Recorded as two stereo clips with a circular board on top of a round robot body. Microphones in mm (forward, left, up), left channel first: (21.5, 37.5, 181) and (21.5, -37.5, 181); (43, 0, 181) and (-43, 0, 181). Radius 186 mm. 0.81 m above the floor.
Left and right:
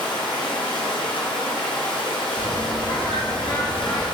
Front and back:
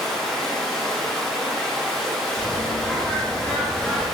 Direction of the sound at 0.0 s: 85° left.